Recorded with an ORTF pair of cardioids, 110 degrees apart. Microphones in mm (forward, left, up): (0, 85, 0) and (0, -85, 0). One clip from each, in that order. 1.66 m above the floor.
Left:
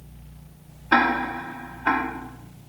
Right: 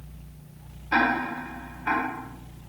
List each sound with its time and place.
0.9 s ticking: 45° left, 0.8 m